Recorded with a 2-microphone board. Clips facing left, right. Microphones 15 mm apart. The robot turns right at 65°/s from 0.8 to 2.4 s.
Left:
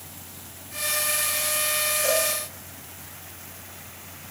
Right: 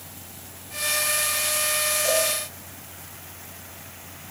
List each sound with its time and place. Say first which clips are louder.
2.0 s a cowbell: right 1 dB; 30° left (ahead or behind), 10 m; by 2.3 s 15° left (ahead or behind), 10 m